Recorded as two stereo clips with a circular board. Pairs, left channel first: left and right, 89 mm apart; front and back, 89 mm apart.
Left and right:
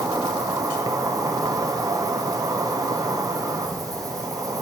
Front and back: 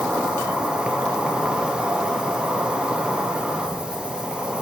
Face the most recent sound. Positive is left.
turn(degrees=-105)